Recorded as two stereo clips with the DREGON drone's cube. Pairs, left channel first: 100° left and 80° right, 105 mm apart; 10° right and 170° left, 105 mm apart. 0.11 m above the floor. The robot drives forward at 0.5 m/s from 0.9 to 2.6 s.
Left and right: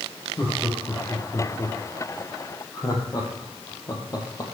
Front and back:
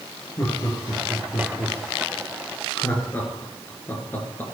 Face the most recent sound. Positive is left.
turn(degrees=55)